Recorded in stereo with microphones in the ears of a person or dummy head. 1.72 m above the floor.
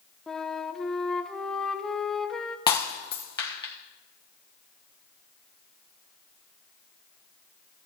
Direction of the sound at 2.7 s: 25° left (ahead or behind).